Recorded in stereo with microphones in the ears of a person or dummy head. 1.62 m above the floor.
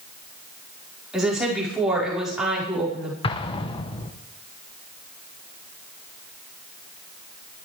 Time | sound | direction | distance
1.1 | a woman speaking | 5° right (ahead or behind) | 5 m
3.2 | an explosion | 30° left (ahead or behind) | 1.2 m